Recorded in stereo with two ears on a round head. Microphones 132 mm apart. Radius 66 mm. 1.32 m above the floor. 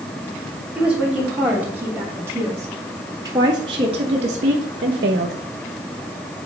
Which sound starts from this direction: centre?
A woman speaking, at 0.8 s.